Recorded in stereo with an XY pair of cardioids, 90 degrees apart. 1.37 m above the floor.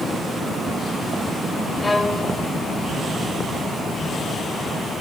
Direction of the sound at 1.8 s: 25° left.